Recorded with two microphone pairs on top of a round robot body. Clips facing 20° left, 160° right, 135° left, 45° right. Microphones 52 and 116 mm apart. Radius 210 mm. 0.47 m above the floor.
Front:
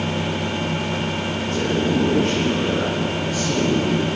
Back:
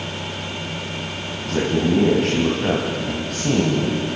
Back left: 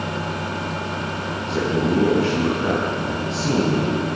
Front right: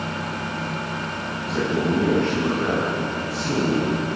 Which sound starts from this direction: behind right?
A man speaking, at 1.4 s.